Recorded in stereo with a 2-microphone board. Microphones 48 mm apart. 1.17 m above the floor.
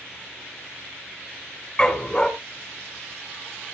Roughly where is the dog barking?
Left.